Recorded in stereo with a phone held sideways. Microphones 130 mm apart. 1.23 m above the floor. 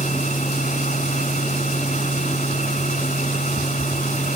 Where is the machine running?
75° left (ahead or behind).